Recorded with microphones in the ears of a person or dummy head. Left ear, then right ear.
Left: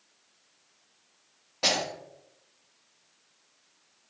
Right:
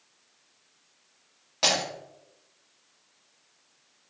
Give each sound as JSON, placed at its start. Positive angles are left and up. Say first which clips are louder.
{"t": 1.6, "sound": "breaking glass", "louder": "right 2 dB", "side_deg": -50, "distance_m": 1.5}